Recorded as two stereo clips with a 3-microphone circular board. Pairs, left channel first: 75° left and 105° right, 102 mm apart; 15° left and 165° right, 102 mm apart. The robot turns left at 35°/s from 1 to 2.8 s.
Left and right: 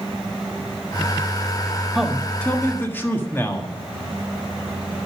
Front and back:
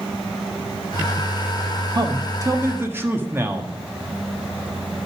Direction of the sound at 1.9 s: 165° left.